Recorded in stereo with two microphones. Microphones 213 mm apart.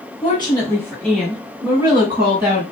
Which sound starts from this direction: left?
A woman speaking, at 0.2 s.